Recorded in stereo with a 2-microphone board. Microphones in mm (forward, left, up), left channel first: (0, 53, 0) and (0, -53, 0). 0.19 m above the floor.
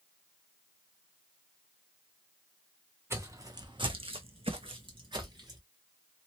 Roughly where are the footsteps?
Right.